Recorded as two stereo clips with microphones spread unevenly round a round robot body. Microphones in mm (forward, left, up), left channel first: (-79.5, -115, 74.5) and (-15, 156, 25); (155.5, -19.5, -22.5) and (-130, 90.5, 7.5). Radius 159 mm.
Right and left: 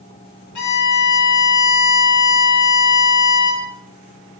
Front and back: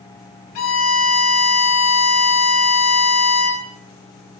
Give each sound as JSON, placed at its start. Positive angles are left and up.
{"t": 0.6, "sound": "a violin", "azimuth_deg": -65, "distance_m": 2.5}